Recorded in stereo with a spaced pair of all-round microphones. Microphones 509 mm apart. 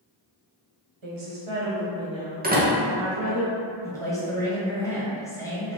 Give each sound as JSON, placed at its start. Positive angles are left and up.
{"t": 1.0, "sound": "a woman speaking", "side_deg": -75, "distance_m": 1.1}
{"t": 2.4, "sound": "a door slam", "side_deg": -20, "distance_m": 0.7}
{"t": 3.8, "sound": "a man speaking", "side_deg": 5, "distance_m": 1.1}